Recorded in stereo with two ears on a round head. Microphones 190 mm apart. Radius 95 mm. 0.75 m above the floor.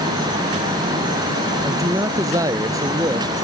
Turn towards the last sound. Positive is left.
turn(degrees=-15)  # may be behind; listen again after turning